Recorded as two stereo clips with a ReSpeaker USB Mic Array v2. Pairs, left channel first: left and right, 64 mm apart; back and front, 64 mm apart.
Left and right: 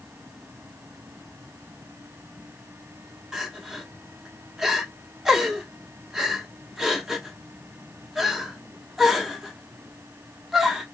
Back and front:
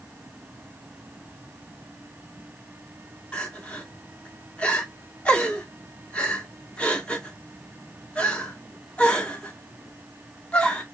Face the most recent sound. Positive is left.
turn(degrees=-160)